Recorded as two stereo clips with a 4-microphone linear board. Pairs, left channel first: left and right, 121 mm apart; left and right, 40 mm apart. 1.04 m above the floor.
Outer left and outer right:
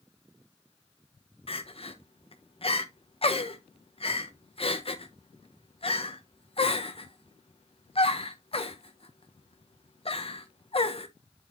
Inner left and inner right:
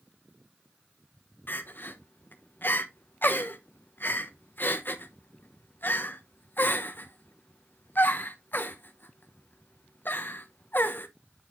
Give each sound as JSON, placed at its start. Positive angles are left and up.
{"t": 1.5, "sound": "crying", "side_deg": 50, "distance_m": 0.9}